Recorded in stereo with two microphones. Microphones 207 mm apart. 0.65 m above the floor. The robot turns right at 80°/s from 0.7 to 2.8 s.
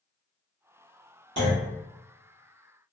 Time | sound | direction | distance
1.4 | a clunk | 70° right (ahead or behind) | 1.5 m